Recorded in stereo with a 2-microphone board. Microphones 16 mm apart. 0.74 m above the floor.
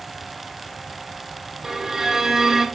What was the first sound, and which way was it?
A violin, 35° right (ahead or behind).